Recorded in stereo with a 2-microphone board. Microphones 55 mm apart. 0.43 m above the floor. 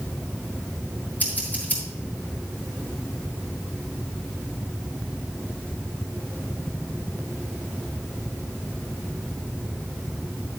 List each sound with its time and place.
1.2 s scissors: 30° left (ahead or behind), 3.5 m